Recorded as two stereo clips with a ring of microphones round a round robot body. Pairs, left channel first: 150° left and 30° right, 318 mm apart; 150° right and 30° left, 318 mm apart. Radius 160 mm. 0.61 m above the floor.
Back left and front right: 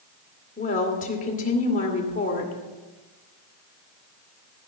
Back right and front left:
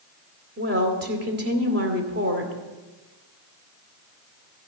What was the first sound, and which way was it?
A woman speaking, 85° left.